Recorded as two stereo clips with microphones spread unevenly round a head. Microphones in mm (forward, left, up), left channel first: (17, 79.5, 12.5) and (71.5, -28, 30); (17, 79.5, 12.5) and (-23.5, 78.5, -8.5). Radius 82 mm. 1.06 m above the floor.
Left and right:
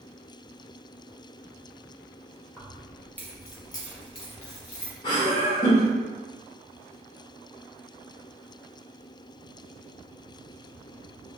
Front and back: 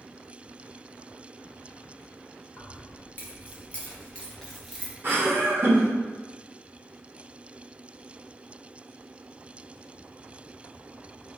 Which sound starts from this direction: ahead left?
Keys jangling, at 2.6 s.